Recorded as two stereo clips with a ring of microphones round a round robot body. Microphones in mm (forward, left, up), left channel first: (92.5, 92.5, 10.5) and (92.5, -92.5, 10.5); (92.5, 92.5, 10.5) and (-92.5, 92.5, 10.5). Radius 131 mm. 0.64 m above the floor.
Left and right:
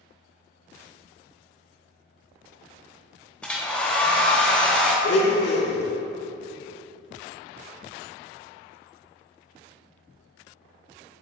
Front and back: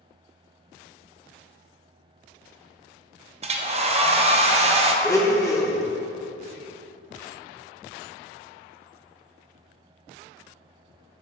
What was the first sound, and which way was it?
A hair dryer, 170° left.